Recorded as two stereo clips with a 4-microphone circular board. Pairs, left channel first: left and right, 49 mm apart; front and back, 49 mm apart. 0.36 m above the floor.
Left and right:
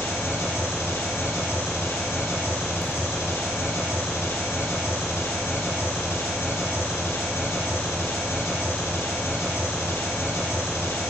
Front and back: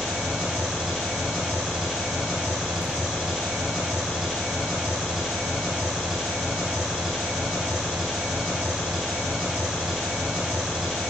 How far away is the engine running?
About 2 m.